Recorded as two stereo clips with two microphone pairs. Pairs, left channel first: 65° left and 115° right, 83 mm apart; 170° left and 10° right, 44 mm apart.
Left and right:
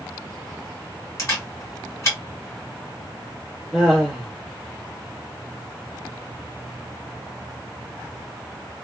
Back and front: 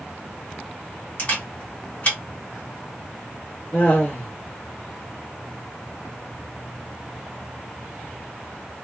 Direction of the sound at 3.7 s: 155° left.